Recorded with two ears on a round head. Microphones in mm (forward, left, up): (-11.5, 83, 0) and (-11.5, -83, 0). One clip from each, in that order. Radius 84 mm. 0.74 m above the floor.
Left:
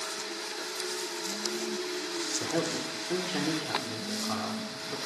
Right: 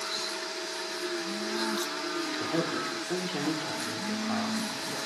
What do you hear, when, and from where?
2.4 s a man speaking: 5° right (ahead or behind), 2.5 m